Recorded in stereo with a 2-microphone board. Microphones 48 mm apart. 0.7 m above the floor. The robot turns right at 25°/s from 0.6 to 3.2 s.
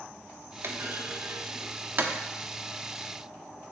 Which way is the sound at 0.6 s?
60° right (ahead or behind).